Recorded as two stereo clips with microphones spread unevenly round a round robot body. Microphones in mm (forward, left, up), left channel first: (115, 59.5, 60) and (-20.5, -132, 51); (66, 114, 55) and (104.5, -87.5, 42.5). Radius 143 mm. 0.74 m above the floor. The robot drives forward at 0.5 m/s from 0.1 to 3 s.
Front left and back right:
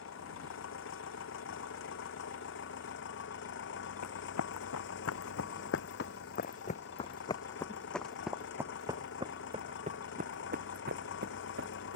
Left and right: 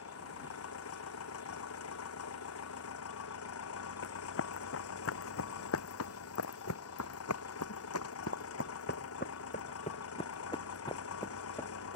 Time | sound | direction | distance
0.0 | an engine running | 100° left | ?
4.0 | running footsteps | 85° left | ?